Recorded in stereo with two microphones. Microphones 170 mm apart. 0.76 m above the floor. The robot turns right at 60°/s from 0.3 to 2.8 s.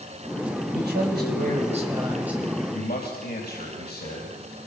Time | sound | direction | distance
0.7 | a man speaking | 100° right | 4.5 m
2.7 | a man speaking | 75° left (ahead or behind) | 4.5 m